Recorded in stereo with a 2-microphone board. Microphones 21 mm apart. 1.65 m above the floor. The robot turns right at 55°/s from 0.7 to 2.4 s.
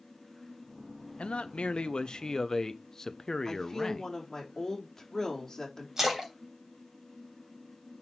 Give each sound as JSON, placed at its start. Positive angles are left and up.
{"t": 1.2, "sound": "a man speaking", "azimuth_deg": 85, "distance_m": 1.0}
{"t": 3.5, "sound": "a woman speaking", "side_deg": 20, "distance_m": 4.0}
{"t": 6.0, "sound": "a splash", "side_deg": -30, "distance_m": 3.0}